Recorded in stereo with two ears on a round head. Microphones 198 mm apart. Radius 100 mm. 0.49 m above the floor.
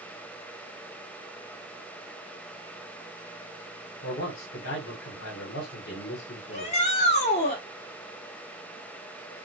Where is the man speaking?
45° left (ahead or behind), 1.5 m.